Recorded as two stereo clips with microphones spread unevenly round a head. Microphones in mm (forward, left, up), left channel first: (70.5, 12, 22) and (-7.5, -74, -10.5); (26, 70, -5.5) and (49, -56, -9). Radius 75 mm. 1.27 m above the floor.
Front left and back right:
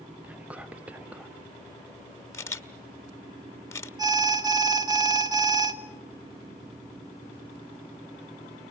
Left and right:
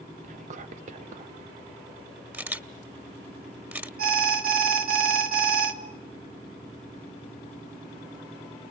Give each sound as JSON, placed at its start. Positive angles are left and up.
{"t": 0.2, "sound": "whispering", "azimuth_deg": -50, "distance_m": 0.7}
{"t": 2.3, "sound": "a camera shutter", "azimuth_deg": -5, "distance_m": 1.5}
{"t": 4.0, "sound": "an alarm", "azimuth_deg": -75, "distance_m": 1.7}